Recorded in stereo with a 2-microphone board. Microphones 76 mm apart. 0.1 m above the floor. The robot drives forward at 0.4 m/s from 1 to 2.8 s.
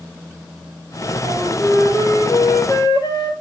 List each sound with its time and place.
1.2 s a flute: 50° left (ahead or behind), 3 m; by 3.3 s 55° left (ahead or behind), 2.5 m